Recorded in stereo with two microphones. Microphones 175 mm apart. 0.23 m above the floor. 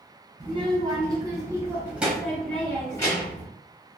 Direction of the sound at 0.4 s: 25° right (ahead or behind).